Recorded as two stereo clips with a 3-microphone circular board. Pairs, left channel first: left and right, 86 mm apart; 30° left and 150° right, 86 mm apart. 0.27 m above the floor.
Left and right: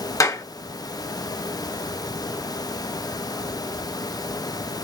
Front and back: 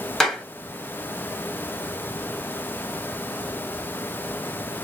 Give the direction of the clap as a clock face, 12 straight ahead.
8 o'clock.